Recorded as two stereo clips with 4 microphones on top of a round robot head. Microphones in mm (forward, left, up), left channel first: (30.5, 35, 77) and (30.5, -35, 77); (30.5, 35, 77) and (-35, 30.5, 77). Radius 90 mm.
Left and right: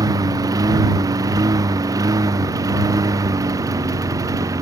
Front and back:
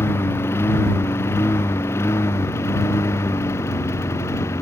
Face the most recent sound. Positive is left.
turn(degrees=-50)